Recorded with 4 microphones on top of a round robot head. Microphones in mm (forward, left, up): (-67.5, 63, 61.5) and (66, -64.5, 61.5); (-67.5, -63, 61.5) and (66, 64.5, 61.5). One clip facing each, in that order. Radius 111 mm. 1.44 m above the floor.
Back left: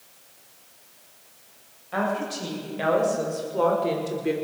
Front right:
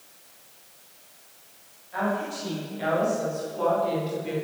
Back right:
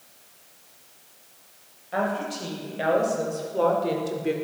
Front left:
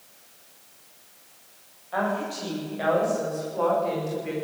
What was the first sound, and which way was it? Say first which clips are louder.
A woman speaking: back left 1 dB, even; 155° left.